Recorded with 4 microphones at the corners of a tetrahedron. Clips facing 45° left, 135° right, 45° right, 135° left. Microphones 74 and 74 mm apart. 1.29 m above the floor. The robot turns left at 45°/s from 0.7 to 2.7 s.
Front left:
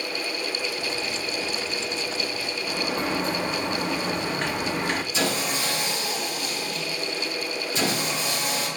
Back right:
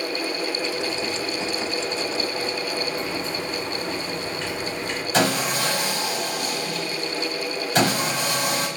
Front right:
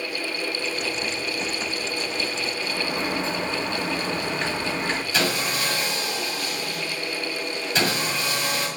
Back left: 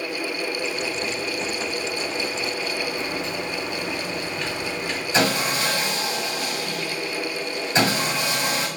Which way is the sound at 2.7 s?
15° left.